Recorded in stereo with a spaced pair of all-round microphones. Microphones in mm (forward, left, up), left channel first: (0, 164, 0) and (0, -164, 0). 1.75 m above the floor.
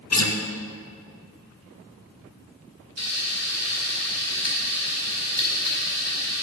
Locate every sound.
0.1 s a guitar: 55° left (ahead or behind), 0.8 m
3.0 s frying: 50° left (ahead or behind), 2 m